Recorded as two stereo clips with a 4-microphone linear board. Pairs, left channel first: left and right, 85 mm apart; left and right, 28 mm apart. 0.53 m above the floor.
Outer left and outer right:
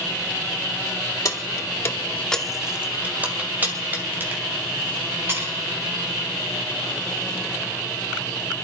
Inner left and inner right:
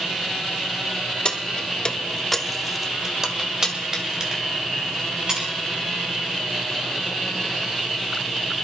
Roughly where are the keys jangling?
Left.